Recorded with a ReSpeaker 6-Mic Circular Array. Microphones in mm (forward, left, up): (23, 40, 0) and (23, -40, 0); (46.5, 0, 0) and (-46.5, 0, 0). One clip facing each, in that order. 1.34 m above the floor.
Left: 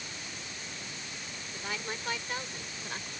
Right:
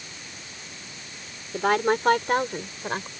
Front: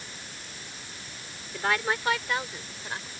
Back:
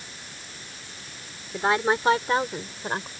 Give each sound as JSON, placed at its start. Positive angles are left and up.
{"t": 1.5, "sound": "a woman speaking", "azimuth_deg": -110}